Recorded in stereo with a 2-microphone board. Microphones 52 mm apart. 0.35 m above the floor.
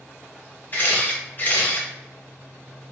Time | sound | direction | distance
0.7 | a camera shutter | 35° left (ahead or behind) | 1.1 m